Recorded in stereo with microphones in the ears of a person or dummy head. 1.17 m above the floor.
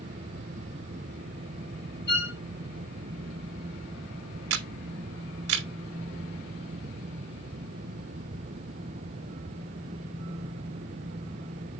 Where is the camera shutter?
75° right (ahead or behind), 1.5 m.